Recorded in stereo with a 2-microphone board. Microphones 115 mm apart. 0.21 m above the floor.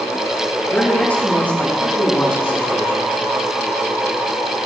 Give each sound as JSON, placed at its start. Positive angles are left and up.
{"t": 0.7, "sound": "a man speaking", "side_deg": 10, "distance_m": 5.0}